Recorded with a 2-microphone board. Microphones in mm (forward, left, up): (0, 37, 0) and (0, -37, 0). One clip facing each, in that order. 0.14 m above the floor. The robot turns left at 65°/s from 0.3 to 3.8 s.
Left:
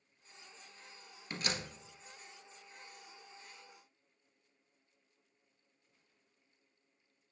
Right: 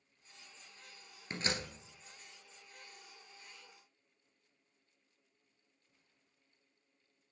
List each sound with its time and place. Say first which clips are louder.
1.3 s a door slam: right 1 dB; 25° right (ahead or behind), 1.5 m; by 1.7 s 45° right (ahead or behind), 1.5 m